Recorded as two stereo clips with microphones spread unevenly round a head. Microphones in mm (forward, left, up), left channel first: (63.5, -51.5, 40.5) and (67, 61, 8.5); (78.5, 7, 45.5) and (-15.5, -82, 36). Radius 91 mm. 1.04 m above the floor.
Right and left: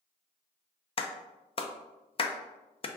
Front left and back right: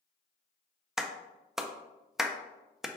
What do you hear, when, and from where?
1.0 s a clap: 55° right, 0.5 m